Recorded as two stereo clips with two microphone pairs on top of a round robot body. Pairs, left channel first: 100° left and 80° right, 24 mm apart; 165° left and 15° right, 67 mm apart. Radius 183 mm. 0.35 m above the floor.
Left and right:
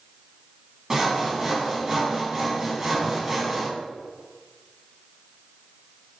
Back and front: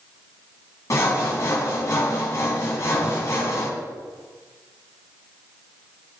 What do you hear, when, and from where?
0.9 s sawing: 150° right, 1.4 m